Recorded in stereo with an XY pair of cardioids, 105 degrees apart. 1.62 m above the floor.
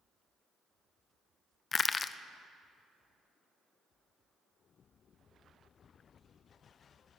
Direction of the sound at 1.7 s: 35° left.